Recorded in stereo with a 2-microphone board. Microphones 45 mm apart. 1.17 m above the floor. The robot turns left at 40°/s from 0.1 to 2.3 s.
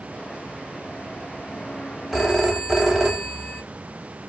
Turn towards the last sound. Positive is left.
turn(degrees=-10)  # may be behind; listen again after turning